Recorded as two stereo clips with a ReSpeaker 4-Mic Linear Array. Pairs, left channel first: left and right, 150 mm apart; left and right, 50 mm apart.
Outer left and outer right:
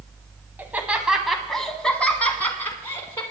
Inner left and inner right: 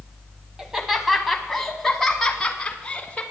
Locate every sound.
0.6 s laughter: 10° right (ahead or behind), 1.4 m; by 3.2 s 20° left (ahead or behind), 2 m